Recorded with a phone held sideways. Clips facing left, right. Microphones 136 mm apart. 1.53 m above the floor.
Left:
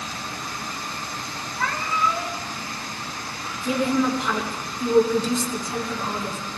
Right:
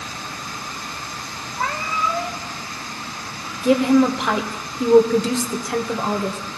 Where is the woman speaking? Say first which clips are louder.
Right 7 dB; 75° right (ahead or behind), 1.3 m.